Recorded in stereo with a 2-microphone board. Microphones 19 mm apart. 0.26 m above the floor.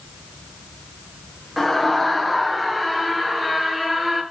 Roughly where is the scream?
Centre.